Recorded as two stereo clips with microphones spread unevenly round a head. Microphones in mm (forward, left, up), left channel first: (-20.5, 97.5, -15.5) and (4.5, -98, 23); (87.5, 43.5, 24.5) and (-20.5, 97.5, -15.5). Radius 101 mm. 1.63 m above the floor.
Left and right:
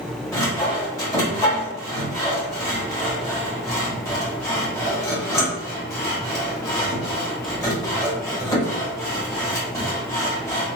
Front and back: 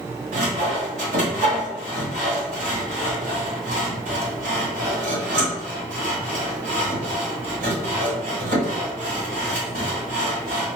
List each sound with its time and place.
0.3 s sawing: 175° left, 1.4 m